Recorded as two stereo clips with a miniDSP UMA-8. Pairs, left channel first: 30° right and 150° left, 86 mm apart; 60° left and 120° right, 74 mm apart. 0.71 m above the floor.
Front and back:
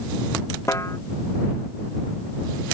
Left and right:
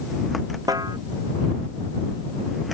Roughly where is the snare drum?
Right.